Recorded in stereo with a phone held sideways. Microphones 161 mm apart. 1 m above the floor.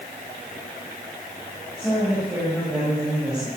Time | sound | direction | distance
1.8 | a woman speaking | 5° right (ahead or behind) | 7.5 m